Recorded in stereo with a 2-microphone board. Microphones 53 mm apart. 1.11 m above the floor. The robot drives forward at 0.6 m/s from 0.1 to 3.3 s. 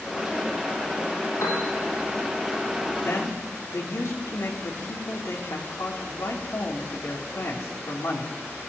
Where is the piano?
70° left (ahead or behind), 7 m.